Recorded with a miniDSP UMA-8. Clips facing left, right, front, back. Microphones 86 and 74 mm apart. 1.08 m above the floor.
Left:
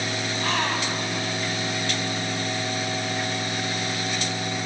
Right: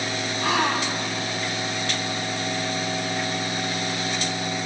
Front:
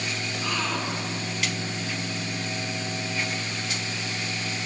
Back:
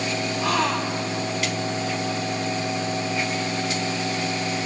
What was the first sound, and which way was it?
A gasp, 170° right.